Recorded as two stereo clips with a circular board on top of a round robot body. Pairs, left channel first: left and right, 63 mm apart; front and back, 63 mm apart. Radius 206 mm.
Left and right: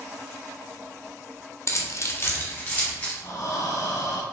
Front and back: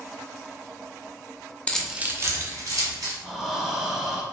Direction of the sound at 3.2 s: 100° left.